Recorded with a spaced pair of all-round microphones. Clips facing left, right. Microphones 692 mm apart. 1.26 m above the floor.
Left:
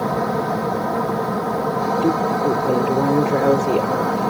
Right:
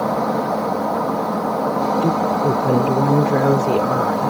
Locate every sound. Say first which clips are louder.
0.0 s a fan: right 1 dB; 45° left (ahead or behind)
2.0 s a woman speaking: left 3 dB; 40° right (ahead or behind)